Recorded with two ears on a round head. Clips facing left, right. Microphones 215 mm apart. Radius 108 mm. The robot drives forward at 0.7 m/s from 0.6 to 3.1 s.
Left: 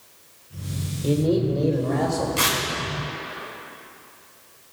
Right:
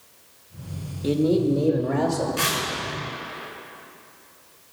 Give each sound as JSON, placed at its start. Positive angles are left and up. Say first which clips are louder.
{"t": 1.0, "sound": "a man speaking", "louder": "right 1 dB", "side_deg": -10, "distance_m": 1.1}
{"t": 2.4, "sound": "tearing paper", "louder": "left 1 dB", "side_deg": 65, "distance_m": 4.0}